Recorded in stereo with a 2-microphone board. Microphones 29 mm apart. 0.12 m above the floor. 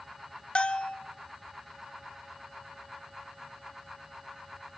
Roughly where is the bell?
Left.